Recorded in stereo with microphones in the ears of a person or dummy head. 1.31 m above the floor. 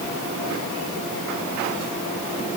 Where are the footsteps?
I don't hear footsteps.